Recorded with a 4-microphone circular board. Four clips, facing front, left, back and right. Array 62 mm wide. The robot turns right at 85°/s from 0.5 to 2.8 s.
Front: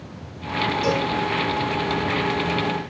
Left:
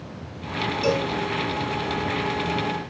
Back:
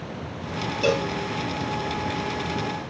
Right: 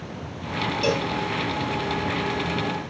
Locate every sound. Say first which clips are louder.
0.8 s a cowbell: left 2 dB, back 3 dB; 155° right, 1.0 m; by 1.1 s 130° right, 1.0 m